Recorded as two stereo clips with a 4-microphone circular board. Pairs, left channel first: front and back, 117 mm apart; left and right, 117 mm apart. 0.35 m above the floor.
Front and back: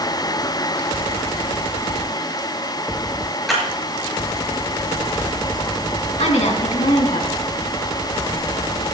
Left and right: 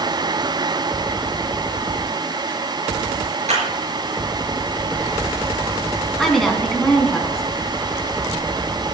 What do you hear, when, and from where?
3.5 s a clap: 90° right, 5.5 m
6.2 s a woman speaking: 5° left, 3.5 m